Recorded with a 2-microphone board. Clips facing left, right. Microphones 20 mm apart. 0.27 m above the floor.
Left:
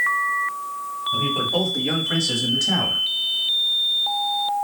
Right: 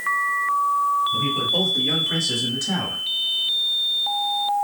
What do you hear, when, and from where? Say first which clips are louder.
1.1 s a man speaking: even; 35° left (ahead or behind), 2.0 m; by 3.0 s 20° left (ahead or behind), 1.5 m